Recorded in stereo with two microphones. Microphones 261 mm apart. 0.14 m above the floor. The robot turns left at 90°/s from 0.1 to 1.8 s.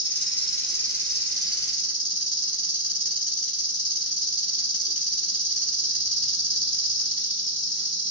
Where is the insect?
55° left, 1.0 m; by 8.1 s 100° right, 1.0 m.